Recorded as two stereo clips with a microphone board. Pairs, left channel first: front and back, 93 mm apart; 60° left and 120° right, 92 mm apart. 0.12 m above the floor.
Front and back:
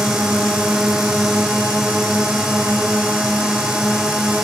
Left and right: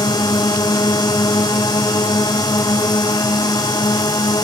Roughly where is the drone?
Left.